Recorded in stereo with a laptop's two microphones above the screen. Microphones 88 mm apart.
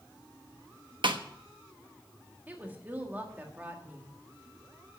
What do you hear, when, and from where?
1.0 s a snare drum: 65° right (ahead or behind), 1.0 m
2.5 s a woman speaking: 20° right (ahead or behind), 1.6 m